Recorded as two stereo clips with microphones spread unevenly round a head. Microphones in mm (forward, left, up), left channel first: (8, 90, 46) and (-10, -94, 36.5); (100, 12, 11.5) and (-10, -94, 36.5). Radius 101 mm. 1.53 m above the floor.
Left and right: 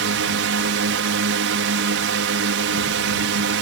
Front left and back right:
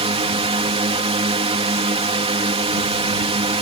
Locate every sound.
0.0 s a drone: 85° right